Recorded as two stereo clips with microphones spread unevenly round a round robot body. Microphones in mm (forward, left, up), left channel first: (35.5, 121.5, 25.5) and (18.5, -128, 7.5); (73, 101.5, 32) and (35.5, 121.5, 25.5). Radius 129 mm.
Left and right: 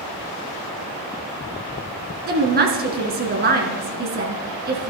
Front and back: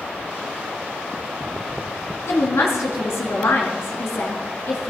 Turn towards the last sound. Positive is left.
turn(degrees=-45)